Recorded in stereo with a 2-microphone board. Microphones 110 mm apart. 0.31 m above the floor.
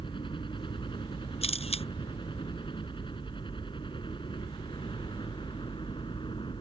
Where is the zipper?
No zipper in this recording.